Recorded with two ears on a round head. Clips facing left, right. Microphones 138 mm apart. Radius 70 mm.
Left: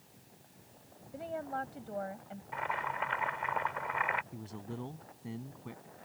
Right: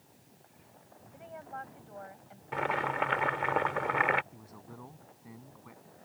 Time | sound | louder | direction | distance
1.1 | a woman speaking | left 6 dB | 45° left (ahead or behind) | ?
2.5 | boiling | right 5 dB | 65° right (ahead or behind) | ?
4.3 | a man speaking | left 7 dB | 30° left (ahead or behind) | ?